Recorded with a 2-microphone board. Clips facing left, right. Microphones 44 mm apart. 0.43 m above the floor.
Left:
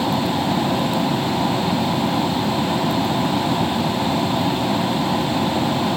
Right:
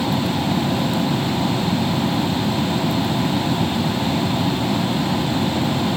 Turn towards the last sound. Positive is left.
turn(degrees=15)  # may be behind; listen again after turning